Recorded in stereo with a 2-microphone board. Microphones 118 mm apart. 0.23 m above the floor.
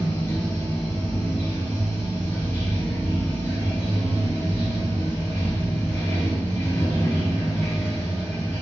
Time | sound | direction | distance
0.0 | running water | 20° left (ahead or behind) | 2 m